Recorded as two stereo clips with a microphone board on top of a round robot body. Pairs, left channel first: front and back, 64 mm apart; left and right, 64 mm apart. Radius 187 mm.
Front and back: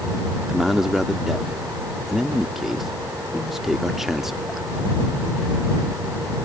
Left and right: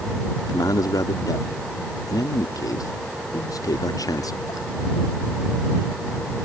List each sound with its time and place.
0.5 s a man speaking: 95° left